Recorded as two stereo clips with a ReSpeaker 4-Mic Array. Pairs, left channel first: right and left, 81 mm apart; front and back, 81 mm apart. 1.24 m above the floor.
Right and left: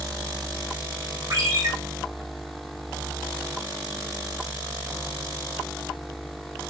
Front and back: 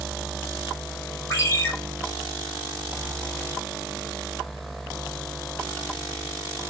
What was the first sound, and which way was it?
A ringtone, 55° left.